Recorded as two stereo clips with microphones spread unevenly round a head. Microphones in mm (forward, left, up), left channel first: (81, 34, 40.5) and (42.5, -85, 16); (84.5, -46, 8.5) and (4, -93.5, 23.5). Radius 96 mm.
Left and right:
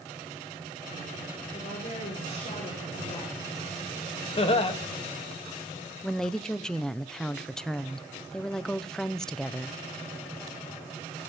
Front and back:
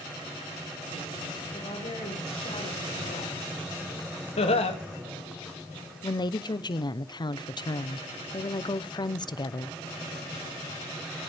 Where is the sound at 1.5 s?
35° left, 8 m.